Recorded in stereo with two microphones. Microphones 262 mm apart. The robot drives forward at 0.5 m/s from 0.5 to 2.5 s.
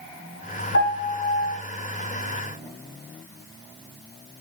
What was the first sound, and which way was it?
A piano, 60° left (ahead or behind).